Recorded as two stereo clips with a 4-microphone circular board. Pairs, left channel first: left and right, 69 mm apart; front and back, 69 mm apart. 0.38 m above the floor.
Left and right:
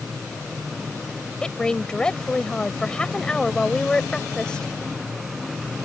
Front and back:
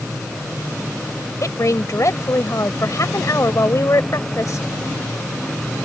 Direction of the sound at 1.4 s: 15° left.